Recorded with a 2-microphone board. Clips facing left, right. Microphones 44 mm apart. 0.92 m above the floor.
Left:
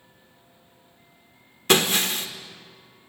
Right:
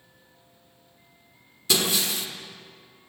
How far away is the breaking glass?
About 1.4 m.